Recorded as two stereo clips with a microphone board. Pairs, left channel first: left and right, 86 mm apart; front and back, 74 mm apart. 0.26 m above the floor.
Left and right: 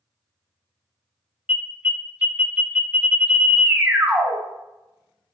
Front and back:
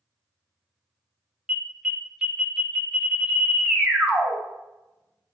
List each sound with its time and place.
1.5 s an alarm: 115° right, 0.6 m